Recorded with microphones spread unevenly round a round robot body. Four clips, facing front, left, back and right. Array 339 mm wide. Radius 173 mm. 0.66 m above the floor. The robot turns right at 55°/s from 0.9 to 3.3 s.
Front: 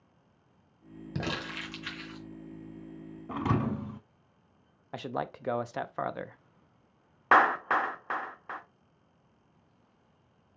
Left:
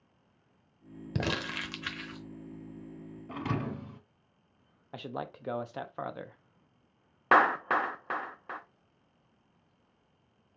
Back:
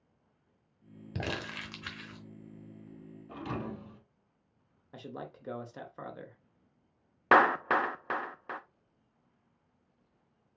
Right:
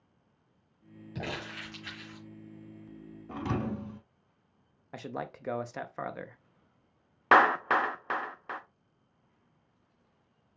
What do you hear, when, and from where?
1.1 s crumpling: 85° left, 1.1 m; by 2.2 s 145° left, 1.1 m
3.3 s a thud: straight ahead, 0.7 m
4.9 s a man speaking: 10° right, 0.5 m
7.3 s a clap: 170° right, 0.8 m